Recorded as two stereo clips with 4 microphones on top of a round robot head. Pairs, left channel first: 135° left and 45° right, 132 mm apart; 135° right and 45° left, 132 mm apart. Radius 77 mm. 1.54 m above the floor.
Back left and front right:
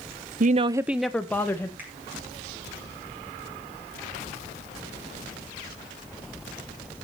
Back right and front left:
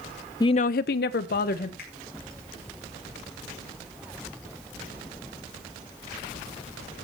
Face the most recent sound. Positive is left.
turn(degrees=-120)